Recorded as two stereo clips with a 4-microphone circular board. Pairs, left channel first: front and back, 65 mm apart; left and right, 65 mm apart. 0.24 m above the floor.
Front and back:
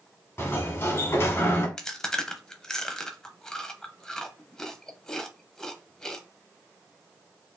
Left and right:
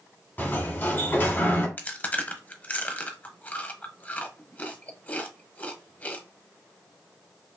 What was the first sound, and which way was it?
A sliding door, 40° left.